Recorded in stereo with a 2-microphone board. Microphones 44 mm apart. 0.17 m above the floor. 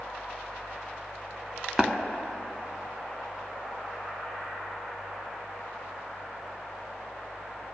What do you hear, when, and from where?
1.8 s tapping: 10° right (ahead or behind), 0.6 m